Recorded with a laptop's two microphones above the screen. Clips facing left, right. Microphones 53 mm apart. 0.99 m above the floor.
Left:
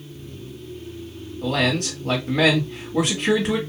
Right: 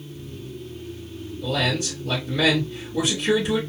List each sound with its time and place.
1.4 s a man speaking: 60° left (ahead or behind), 1.5 m